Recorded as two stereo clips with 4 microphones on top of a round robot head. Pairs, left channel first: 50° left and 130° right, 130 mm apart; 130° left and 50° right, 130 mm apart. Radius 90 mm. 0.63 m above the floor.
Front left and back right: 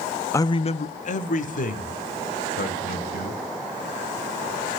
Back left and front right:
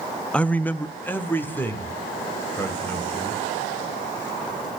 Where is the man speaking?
65° left, 0.5 m; by 3.4 s 55° left, 3.5 m.